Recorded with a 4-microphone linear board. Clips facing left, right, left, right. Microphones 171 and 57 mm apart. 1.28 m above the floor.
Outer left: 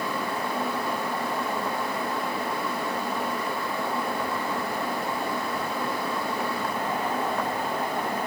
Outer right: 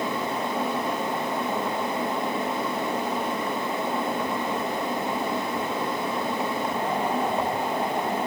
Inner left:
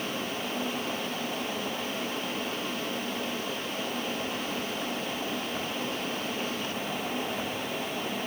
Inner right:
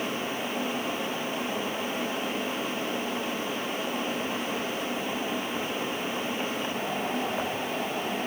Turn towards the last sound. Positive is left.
No sound to turn to.